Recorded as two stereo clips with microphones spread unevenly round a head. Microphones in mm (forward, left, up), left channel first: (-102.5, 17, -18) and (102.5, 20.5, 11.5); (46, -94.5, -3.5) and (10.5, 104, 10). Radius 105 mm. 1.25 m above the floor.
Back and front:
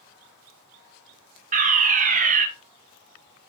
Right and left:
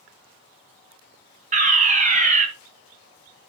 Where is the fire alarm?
50° left, 1.5 m.